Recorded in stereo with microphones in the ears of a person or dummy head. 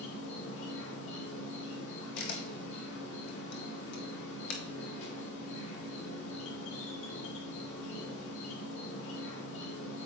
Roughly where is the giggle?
I don't hear a giggle.